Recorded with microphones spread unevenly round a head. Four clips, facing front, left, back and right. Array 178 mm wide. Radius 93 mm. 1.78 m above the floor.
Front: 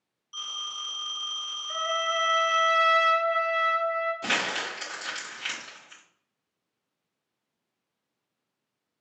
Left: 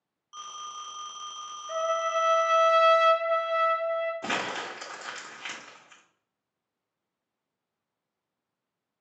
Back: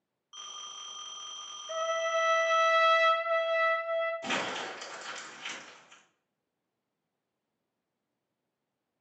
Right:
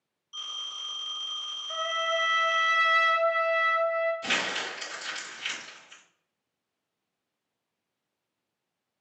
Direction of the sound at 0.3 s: 90° left.